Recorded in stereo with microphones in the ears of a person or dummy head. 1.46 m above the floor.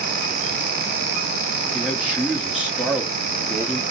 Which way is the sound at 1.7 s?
5° right (ahead or behind).